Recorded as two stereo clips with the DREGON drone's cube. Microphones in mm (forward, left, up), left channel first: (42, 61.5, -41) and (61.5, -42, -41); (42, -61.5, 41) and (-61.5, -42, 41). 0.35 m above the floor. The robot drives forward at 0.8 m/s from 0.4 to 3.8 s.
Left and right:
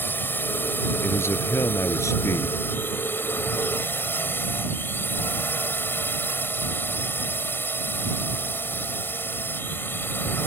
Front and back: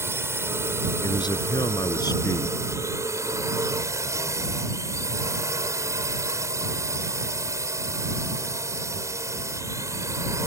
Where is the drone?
145° left; by 10.5 s 150° left.